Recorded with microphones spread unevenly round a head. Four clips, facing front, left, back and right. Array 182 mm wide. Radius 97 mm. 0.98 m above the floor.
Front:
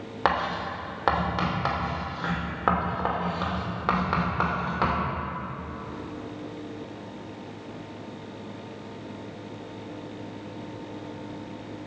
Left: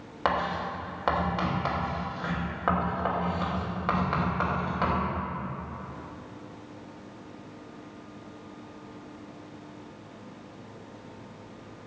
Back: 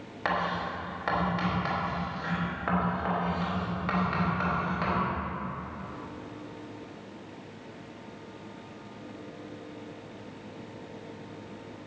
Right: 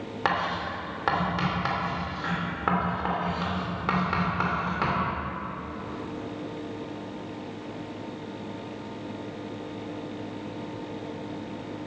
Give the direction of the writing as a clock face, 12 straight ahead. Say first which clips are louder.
Even, front 4 dB; 12 o'clock.